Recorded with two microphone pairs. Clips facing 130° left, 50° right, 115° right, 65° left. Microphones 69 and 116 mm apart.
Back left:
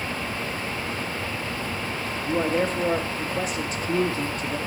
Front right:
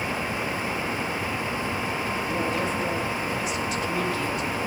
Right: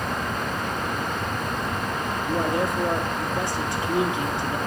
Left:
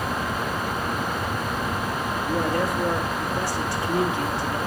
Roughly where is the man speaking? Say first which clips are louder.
Back left 6 dB, even; behind.